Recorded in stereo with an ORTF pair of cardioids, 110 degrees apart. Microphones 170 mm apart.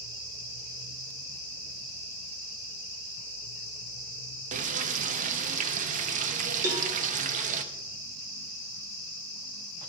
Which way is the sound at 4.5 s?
50° right.